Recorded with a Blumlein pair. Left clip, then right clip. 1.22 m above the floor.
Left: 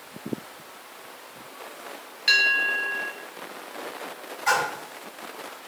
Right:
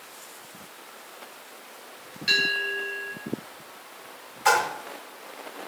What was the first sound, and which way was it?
A bell, 65° left.